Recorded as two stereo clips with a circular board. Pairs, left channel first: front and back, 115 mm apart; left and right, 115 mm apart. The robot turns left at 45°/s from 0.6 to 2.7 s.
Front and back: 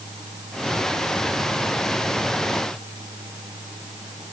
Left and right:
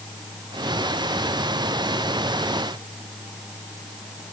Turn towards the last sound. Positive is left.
No sound to turn to.